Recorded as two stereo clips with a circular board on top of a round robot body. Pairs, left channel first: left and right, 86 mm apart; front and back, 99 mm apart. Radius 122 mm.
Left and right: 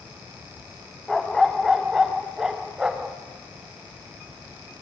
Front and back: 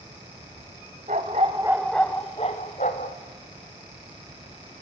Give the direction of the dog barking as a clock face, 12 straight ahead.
6 o'clock.